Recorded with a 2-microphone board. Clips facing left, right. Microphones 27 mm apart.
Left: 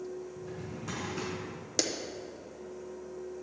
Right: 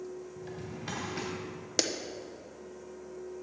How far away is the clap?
About 0.6 m.